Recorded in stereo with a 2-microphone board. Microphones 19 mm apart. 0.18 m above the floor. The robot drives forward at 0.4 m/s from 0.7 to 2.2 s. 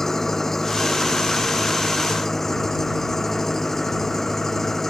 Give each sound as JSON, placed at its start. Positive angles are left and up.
{"t": 0.0, "sound": "an engine running", "side_deg": 20}